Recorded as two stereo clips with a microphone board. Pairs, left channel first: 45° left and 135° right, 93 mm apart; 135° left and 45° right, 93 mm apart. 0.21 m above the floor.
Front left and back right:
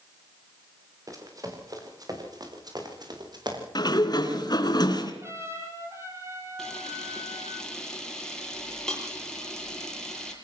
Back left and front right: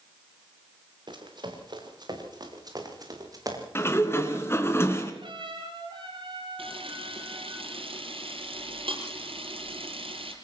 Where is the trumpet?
75° right, 6 m.